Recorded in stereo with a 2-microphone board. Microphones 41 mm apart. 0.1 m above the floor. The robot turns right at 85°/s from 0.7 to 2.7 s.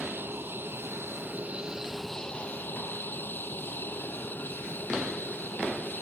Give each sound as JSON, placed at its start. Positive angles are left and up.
{"t": 0.0, "sound": "an aircraft", "azimuth_deg": -110}